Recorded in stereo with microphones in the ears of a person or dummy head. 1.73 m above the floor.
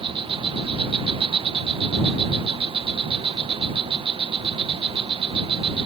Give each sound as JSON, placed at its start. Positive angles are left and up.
{"t": 0.0, "sound": "an insect", "side_deg": -25}